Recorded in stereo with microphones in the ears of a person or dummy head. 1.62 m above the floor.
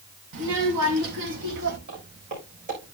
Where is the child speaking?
65° right (ahead or behind), 1.5 m.